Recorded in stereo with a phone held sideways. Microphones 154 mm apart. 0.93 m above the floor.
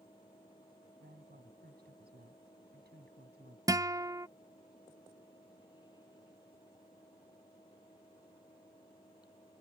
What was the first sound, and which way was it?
A fan, 25° left (ahead or behind).